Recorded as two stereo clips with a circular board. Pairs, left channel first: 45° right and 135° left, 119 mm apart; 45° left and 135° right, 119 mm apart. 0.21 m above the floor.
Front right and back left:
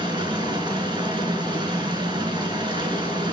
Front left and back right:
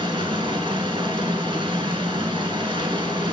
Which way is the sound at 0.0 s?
Straight behind.